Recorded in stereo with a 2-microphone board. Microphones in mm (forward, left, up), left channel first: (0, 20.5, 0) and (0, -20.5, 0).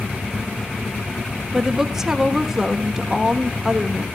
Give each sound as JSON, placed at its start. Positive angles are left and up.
{"t": 1.5, "sound": "a woman speaking", "side_deg": -10, "distance_m": 1.0}